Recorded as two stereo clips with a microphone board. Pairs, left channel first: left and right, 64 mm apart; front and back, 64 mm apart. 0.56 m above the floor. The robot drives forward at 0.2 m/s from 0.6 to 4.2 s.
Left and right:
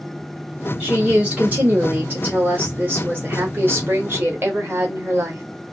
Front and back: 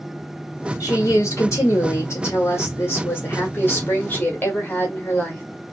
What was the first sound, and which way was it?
A woman speaking, 25° right.